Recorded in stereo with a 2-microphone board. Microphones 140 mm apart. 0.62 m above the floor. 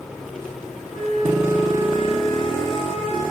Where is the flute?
85° left, 8.5 m.